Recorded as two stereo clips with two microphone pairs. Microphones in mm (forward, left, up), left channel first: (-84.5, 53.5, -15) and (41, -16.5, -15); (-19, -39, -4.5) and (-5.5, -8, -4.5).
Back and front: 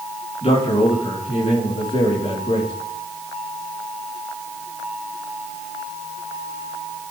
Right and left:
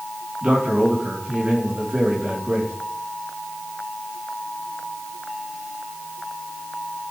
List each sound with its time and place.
0.4 s a man speaking: 110° left, 4.5 m